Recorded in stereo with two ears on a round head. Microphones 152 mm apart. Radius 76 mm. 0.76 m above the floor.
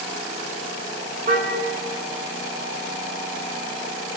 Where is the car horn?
45° right (ahead or behind), 3 m.